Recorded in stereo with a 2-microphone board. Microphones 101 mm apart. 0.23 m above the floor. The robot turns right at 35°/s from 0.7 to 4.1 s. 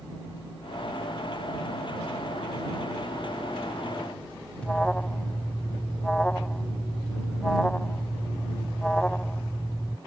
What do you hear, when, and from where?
4.6 s an alarm: 10° left (ahead or behind)